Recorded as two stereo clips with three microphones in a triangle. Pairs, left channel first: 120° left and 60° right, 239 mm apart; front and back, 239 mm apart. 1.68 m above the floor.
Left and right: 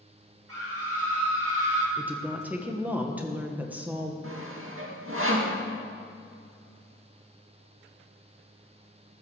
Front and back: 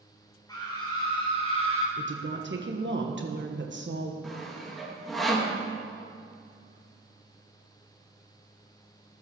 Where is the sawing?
90° right, 2 m.